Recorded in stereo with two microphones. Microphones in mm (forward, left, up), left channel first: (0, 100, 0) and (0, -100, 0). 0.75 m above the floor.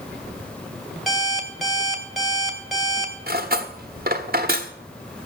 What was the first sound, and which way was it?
An alarm clock, centre (ahead or behind).